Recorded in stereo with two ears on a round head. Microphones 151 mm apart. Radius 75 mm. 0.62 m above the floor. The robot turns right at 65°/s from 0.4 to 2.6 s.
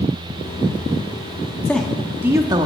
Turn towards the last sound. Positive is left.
turn(degrees=-135)